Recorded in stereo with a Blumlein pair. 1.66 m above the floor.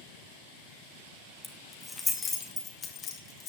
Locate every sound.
1.4 s keys jangling: straight ahead, 2 m; by 3.5 s 30° left, 3.5 m